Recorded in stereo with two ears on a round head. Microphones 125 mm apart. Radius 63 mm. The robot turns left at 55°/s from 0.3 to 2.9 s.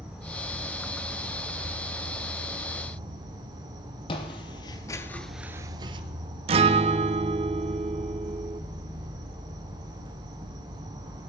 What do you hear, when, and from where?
0.0 s an insect: 5° right, 2 m; by 11.3 s 150° right, 2 m
4.1 s footsteps: 35° left (ahead or behind), 1.7 m; by 6.0 s 35° right (ahead or behind), 1.1 m
6.5 s a guitar: 40° right (ahead or behind), 0.6 m